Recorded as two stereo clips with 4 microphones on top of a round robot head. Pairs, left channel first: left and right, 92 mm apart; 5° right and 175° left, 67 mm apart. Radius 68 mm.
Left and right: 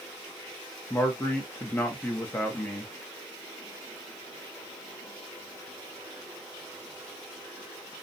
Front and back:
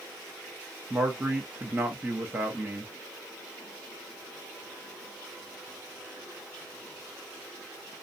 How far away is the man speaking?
About 0.8 m.